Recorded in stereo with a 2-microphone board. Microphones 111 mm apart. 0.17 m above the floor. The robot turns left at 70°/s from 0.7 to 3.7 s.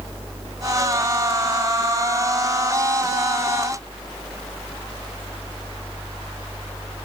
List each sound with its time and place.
Only background noise.